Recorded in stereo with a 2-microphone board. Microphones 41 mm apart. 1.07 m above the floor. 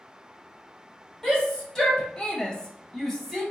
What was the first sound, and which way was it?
A shout, 10° left (ahead or behind).